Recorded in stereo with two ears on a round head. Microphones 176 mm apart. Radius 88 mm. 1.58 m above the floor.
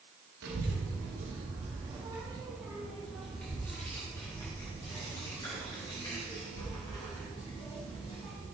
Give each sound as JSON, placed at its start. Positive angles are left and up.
{"t": 0.4, "sound": "a child speaking", "side_deg": -55, "distance_m": 1.6}